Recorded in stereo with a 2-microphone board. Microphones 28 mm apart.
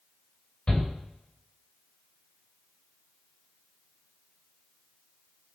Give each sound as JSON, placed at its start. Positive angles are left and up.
{"t": 0.7, "sound": "a shout", "side_deg": 40, "distance_m": 3.0}